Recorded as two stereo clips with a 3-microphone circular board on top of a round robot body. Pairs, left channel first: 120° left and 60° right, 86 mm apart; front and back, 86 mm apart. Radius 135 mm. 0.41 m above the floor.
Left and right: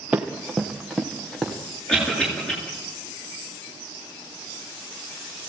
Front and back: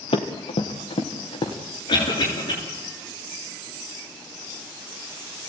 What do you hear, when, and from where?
0.1 s running footsteps: 20° left, 2.5 m; by 1.6 s 40° left, 4.5 m
1.9 s a cough: 40° left, 9.5 m